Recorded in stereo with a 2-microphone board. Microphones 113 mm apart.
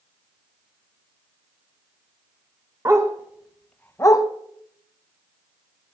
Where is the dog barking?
30° right (ahead or behind), 1.3 m; by 4.2 s 40° left (ahead or behind), 1.0 m.